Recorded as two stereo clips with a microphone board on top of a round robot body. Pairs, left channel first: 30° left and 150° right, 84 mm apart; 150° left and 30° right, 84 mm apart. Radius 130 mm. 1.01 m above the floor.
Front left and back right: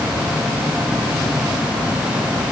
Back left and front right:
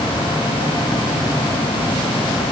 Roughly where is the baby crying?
No baby crying in this recording.